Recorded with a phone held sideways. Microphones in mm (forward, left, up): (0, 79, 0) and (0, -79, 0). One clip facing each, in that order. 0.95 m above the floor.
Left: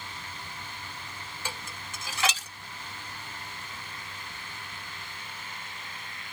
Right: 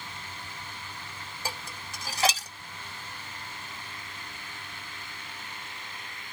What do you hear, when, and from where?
1.4 s dishes clattering: 35° right (ahead or behind), 0.8 m